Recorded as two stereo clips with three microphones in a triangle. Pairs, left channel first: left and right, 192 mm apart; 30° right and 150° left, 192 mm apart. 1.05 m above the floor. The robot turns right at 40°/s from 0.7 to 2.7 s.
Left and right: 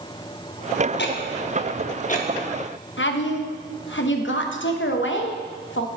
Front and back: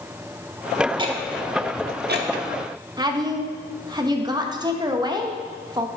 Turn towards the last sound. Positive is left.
turn(degrees=85)